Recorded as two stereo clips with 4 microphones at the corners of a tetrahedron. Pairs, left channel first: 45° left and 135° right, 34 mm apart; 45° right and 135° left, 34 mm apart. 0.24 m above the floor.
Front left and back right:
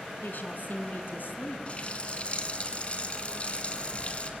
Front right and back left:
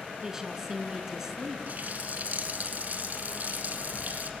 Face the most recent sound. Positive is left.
turn(degrees=95)